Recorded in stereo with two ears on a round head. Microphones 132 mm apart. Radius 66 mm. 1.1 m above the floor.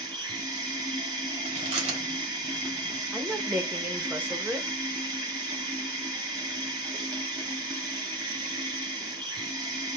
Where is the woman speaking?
10° right (ahead or behind), 0.9 m.